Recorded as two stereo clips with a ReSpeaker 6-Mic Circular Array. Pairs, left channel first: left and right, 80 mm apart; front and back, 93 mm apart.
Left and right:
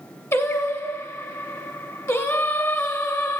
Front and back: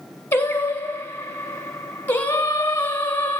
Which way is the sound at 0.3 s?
55° left.